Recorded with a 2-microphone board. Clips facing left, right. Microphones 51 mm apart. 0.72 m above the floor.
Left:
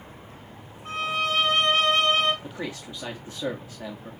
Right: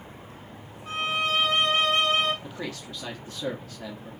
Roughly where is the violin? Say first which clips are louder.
Even; left.